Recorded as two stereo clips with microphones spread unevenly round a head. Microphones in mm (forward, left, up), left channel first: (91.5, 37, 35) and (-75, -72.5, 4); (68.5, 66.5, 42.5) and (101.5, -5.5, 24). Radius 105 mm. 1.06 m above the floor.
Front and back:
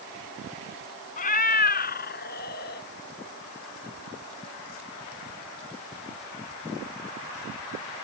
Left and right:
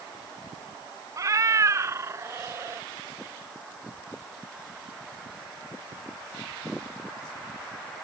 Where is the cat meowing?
15° right; by 2.9 s 5° right.